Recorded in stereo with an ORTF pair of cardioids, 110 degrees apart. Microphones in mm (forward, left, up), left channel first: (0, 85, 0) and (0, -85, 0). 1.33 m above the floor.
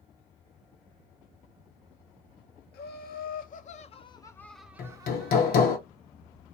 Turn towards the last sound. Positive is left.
turn(degrees=60)